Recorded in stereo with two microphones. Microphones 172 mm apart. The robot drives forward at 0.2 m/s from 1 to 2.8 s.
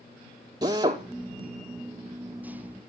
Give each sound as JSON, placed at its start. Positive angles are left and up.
{"t": 0.6, "sound": "a drill", "side_deg": -25, "distance_m": 3.0}